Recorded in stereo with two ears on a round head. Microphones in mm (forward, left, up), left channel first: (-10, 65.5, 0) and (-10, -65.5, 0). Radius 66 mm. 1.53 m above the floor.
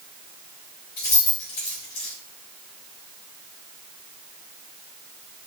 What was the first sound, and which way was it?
Keys jangling, 65° left (ahead or behind).